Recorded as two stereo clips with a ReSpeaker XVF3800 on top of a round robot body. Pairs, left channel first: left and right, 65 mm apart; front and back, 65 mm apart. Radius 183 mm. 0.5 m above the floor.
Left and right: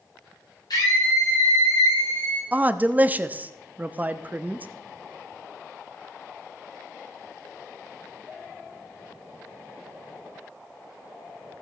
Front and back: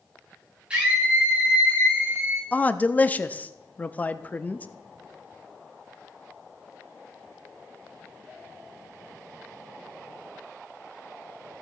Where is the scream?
105° left, 4 m; by 2.4 s 115° left, 5 m.